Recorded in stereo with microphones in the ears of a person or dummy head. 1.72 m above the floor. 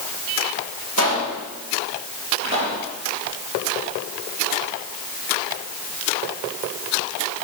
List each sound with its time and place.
1.0 s a pop: 75° right (ahead or behind), 6.5 m
2.4 s a pop: 35° right (ahead or behind), 9 m